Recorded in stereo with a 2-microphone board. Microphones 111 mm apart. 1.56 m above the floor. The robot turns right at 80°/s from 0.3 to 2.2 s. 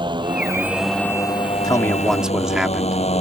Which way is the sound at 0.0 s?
45° right.